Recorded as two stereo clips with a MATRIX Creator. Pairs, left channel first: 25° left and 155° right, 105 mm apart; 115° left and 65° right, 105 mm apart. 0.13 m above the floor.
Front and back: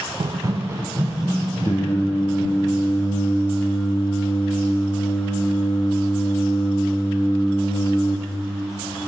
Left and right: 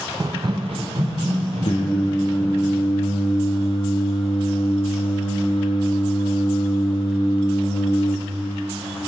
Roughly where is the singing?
Left.